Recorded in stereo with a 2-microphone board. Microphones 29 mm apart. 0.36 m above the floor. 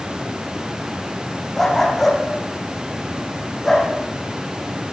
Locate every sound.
1.6 s a dog barking: 5° left (ahead or behind), 5.5 m